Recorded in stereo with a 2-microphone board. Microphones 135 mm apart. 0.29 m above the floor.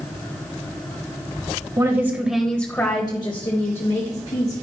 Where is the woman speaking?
25° right (ahead or behind), 1.0 m; by 4.5 s 60° left (ahead or behind), 1.7 m.